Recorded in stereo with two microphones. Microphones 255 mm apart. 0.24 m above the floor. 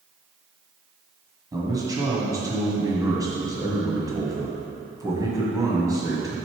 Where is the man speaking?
15° right (ahead or behind), 1.6 m.